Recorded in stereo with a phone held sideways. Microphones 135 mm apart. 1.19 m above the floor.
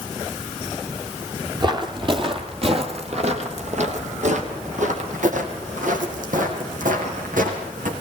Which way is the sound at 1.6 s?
30° right (ahead or behind).